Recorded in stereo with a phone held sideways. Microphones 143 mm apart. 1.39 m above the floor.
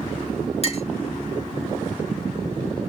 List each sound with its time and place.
0.6 s a clink: 45° left (ahead or behind), 0.8 m